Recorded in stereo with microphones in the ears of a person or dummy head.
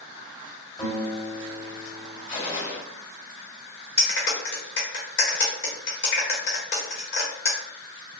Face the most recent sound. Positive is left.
turn(degrees=60)  # may be behind; listen again after turning